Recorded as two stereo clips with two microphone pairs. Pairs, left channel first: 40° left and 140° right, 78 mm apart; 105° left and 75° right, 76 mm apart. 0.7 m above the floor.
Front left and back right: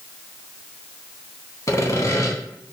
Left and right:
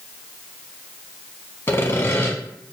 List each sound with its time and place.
1.7 s sawing: 65° left, 0.8 m